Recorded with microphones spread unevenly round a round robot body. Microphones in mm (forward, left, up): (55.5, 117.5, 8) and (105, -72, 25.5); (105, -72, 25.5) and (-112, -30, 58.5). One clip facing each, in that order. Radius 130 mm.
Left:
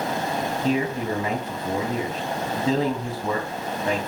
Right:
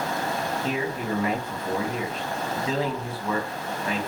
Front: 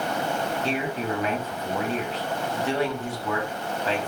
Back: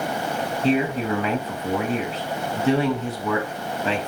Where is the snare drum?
No snare drum in this recording.